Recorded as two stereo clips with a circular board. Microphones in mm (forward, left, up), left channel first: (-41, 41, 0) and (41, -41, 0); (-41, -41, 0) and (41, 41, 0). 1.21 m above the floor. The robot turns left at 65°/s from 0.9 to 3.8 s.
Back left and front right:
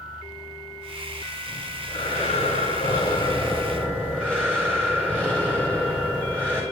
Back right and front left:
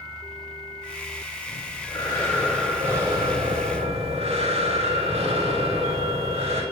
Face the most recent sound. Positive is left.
turn(degrees=55)